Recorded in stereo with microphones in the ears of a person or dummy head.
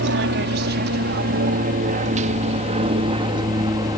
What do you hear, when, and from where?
0.0 s an aircraft: 60° right (ahead or behind); by 4.0 s 15° right (ahead or behind)